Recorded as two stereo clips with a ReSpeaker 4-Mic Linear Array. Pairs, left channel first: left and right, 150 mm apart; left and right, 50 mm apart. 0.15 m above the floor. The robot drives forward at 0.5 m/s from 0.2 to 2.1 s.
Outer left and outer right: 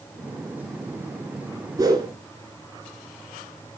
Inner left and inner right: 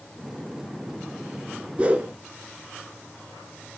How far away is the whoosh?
About 0.7 m.